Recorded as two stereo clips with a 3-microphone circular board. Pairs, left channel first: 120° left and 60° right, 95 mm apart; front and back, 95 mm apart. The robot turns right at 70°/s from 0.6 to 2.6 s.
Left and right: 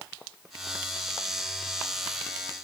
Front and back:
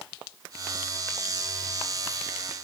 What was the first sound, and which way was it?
Only background noise.